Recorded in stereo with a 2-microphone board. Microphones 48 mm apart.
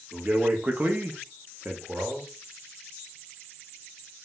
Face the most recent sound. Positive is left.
turn(degrees=-25)  # may be behind; listen again after turning